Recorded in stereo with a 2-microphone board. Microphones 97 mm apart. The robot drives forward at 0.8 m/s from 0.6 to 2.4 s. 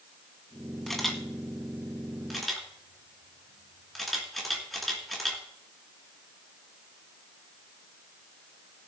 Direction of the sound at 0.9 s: 5° left (ahead or behind).